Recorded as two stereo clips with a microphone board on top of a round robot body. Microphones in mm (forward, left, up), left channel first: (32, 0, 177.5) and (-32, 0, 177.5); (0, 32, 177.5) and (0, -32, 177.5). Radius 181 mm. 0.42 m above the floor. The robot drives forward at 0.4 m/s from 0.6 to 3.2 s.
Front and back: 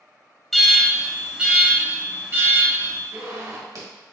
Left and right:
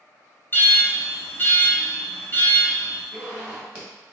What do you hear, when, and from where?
0.5 s an alarm: 85° left, 1.3 m; by 3.0 s 145° left, 1.6 m
3.1 s a zipper: 160° right, 2.0 m